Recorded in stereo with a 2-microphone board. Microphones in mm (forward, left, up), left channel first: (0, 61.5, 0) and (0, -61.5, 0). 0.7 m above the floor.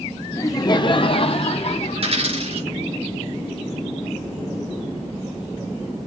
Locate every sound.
0.3 s laughter: 25° left (ahead or behind), 0.6 m; by 2.1 s 60° left (ahead or behind), 1.4 m
1.9 s a dropped coin: 50° right (ahead or behind), 5 m